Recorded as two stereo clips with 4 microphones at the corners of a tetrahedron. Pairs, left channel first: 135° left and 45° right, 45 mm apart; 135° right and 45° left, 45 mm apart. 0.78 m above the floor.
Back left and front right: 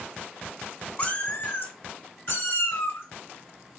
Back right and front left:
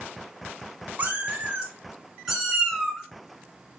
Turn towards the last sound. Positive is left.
turn(degrees=135)